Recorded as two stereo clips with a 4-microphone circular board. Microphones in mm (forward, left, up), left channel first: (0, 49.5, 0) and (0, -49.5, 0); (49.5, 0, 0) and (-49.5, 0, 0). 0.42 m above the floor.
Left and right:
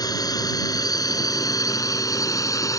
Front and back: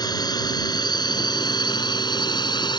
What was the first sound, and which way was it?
A drone, 45° left.